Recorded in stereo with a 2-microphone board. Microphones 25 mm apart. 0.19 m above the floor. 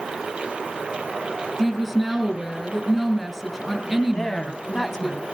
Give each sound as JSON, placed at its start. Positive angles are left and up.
{"t": 1.6, "sound": "a woman speaking", "side_deg": 0, "distance_m": 3.5}
{"t": 4.1, "sound": "a woman speaking", "side_deg": 20, "distance_m": 1.1}